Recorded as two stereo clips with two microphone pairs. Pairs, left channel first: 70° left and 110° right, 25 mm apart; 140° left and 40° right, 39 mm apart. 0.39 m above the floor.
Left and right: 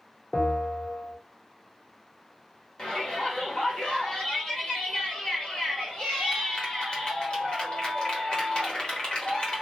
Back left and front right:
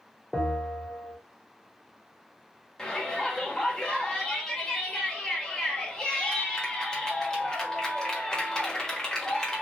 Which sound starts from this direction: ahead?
A bell, at 0.3 s.